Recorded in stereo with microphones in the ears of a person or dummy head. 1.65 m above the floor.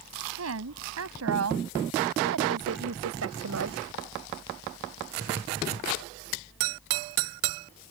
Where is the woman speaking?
85° right; by 3.8 s 90° right.